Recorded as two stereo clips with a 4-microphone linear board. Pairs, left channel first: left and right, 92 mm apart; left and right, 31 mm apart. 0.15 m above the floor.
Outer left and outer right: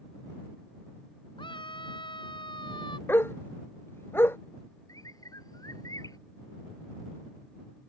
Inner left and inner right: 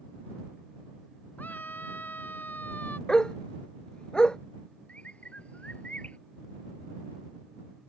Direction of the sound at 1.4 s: 60° left (ahead or behind).